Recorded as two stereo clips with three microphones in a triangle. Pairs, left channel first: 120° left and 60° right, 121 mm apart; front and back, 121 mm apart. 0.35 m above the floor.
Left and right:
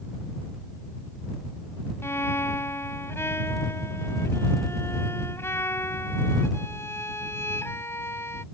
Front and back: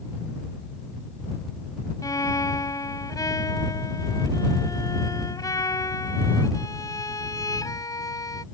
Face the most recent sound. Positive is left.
turn(degrees=55)